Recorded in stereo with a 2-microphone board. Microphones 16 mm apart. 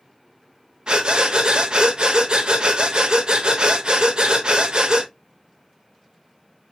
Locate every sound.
0.9 s breathing: 60° right (ahead or behind), 0.5 m